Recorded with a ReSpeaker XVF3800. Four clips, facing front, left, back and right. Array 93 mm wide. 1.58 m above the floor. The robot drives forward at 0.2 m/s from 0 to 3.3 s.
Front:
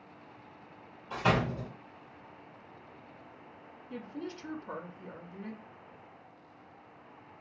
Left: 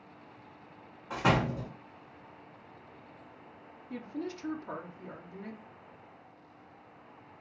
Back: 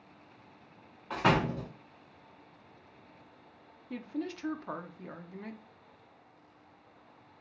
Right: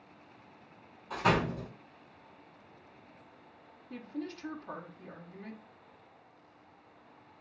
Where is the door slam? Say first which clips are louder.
Left 1 dB, back 2 dB; 160° left, 1.3 m.